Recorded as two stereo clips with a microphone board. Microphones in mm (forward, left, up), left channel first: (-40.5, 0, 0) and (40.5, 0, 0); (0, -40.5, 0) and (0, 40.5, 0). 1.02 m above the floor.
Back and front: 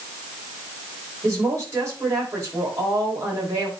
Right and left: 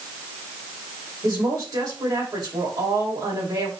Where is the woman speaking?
55° left, 5.5 m.